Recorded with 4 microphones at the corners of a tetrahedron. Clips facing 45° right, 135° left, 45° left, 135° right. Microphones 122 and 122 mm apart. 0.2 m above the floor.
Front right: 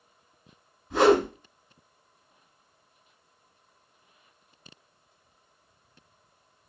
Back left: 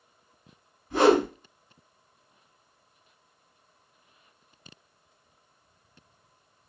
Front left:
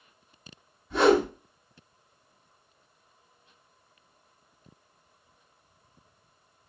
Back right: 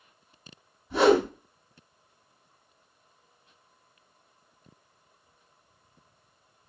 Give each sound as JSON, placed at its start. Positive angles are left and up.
{"t": 0.9, "sound": "a whoosh", "azimuth_deg": -65, "distance_m": 1.6}